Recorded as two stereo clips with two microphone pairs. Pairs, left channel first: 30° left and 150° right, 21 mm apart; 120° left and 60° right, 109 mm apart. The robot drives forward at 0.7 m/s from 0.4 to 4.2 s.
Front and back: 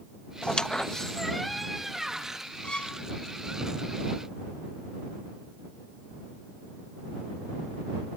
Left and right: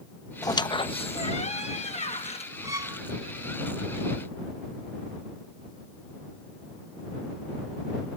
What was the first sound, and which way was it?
A squeak, 65° left.